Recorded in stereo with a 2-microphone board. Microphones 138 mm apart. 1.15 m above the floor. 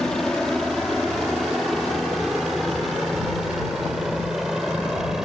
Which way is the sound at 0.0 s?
5° left (ahead or behind).